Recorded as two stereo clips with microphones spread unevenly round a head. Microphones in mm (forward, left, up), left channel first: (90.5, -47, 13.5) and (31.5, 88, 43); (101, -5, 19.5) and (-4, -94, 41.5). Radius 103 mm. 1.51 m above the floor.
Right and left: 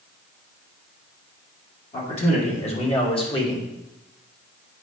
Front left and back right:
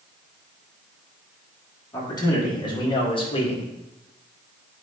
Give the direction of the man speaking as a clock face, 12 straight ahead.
1 o'clock.